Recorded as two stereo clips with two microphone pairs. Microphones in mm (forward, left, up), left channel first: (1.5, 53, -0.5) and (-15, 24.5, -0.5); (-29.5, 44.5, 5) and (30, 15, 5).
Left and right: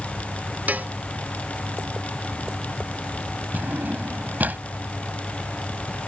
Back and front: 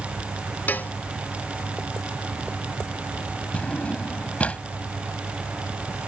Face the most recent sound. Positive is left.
turn(degrees=-140)